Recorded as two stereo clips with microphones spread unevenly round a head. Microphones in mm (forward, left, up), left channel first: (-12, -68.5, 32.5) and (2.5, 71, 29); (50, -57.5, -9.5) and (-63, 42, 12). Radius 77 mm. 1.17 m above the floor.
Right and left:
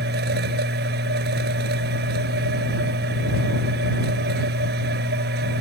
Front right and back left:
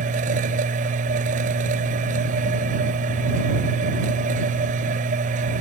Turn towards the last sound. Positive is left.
turn(degrees=95)